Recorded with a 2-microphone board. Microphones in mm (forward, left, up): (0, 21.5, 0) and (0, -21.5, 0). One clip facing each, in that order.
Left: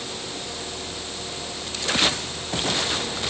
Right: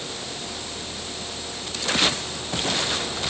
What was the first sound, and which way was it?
Only background noise.